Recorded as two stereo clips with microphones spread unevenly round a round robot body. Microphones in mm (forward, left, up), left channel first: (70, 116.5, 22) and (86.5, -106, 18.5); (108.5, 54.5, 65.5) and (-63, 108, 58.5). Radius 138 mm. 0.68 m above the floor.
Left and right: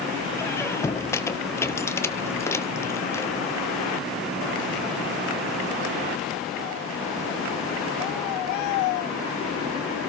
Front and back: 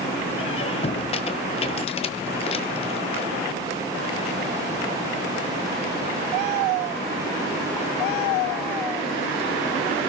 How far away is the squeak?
About 0.8 m.